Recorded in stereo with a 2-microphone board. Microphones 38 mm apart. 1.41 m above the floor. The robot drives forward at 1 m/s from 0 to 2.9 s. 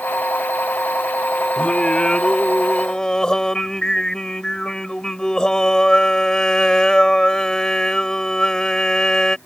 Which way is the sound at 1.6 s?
30° left (ahead or behind).